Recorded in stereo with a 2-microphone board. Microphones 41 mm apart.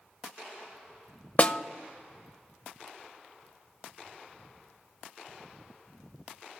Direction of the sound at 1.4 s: 35° left (ahead or behind).